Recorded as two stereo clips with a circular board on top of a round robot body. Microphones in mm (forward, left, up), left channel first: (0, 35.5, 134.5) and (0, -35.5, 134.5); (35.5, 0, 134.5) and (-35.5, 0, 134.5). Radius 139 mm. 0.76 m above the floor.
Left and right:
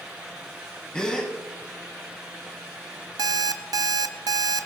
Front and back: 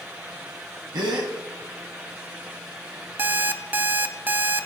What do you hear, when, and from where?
0.9 s a gasp: 165° left, 1.6 m
3.2 s an alarm clock: 115° right, 0.6 m